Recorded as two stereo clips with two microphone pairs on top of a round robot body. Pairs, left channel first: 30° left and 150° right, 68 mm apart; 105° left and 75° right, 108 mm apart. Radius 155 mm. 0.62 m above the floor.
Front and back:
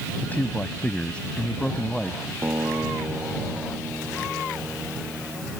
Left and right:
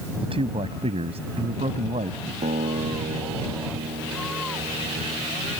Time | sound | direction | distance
0.2 | a man speaking | 35° right | ?
2.4 | a guitar | 95° right | ?